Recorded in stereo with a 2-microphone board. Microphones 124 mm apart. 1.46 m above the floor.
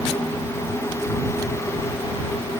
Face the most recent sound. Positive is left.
No sound to turn to.